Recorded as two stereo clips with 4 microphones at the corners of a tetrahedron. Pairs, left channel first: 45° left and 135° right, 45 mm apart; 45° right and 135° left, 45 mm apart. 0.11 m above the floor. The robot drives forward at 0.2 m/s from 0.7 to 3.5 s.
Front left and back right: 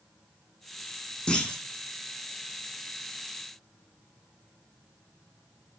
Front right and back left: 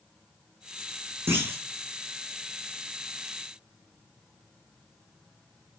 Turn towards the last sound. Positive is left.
turn(degrees=125)